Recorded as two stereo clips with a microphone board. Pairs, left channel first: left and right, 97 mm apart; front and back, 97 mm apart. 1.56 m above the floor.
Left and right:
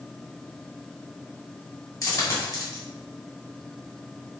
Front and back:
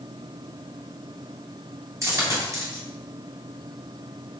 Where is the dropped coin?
135° left, 1.9 m.